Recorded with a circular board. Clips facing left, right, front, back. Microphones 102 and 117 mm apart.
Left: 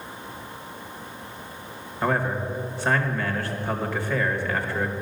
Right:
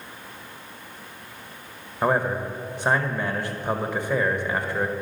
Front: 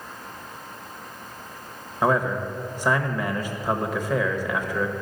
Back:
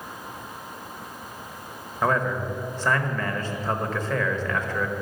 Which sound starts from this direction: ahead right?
A man speaking, at 2.0 s.